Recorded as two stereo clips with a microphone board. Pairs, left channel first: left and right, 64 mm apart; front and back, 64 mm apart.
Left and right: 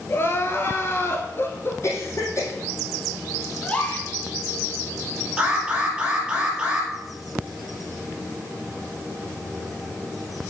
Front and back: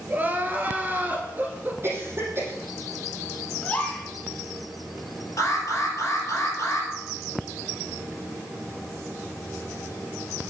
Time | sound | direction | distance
0.1 | crying | 130° left | 1.5 m
1.8 | a cough | 130° left | 4.5 m
3.6 | a gasp | 40° left | 1.7 m
5.4 | an alarm | 15° right | 2.5 m